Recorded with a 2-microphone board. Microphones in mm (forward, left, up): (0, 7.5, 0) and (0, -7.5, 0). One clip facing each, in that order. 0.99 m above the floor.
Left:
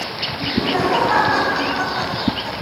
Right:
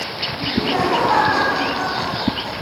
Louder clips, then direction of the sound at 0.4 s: Even; 15° right (ahead or behind).